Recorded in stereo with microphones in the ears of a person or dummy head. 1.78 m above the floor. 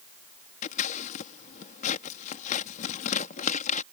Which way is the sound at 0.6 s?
45° left (ahead or behind).